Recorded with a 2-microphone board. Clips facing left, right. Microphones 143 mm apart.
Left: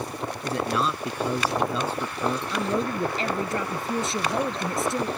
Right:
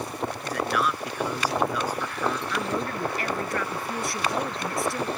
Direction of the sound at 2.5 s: 20° left (ahead or behind).